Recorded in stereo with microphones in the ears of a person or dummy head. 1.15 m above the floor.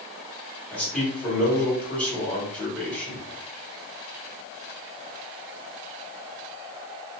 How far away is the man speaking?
About 1.7 m.